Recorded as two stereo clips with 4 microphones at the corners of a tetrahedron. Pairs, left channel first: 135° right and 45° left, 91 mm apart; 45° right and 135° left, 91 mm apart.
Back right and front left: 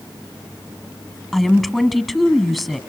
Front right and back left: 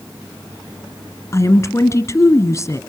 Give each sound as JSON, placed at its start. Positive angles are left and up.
{"t": 1.3, "sound": "a woman speaking", "azimuth_deg": -45, "distance_m": 1.2}